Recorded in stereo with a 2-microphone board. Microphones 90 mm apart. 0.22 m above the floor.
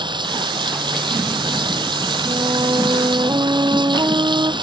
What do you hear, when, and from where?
0.0 s running water: 60° right (ahead or behind)
2.2 s a flute: 50° right (ahead or behind)